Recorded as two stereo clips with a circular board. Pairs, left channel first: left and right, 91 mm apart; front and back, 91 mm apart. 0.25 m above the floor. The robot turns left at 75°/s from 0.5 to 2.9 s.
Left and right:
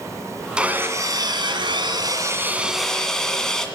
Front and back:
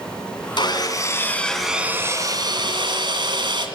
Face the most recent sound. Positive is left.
turn(degrees=175)